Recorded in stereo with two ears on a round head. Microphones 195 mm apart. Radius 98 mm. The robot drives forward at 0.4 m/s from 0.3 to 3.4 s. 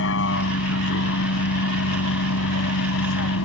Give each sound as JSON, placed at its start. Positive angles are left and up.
{"t": 0.0, "sound": "a vehicle", "side_deg": 65}